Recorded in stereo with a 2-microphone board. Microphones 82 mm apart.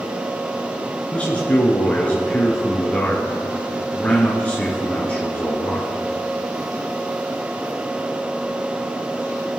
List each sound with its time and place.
1.1 s a man speaking: 15° left (ahead or behind), 2.5 m